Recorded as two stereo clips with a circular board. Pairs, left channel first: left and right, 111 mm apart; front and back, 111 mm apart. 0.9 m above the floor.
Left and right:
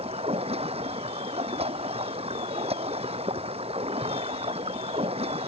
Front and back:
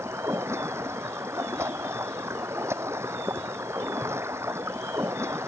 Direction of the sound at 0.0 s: 115° right.